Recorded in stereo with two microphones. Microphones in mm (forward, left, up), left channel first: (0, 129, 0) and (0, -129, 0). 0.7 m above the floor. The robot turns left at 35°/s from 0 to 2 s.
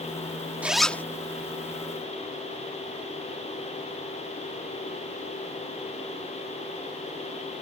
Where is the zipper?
5° right (ahead or behind); by 1.0 s 10° left (ahead or behind).